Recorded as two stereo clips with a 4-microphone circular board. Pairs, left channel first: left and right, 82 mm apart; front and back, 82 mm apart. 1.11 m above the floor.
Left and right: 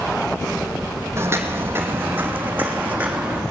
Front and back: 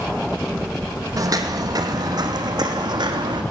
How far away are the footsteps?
About 2.5 m.